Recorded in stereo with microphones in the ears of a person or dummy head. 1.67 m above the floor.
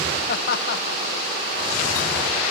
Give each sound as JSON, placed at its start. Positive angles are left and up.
{"t": 0.3, "sound": "laughter", "side_deg": 55, "distance_m": 1.1}